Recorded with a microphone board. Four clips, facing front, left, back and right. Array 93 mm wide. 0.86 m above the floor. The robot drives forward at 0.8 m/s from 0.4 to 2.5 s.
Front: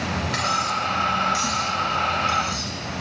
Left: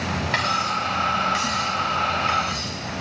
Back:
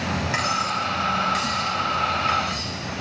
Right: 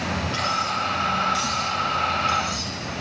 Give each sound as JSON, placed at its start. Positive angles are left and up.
{"t": 0.3, "sound": "cutlery clinking", "azimuth_deg": 115, "distance_m": 4.0}